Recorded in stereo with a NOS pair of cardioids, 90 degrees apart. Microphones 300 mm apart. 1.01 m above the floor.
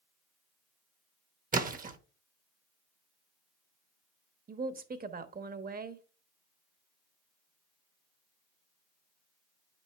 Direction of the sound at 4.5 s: 30° right.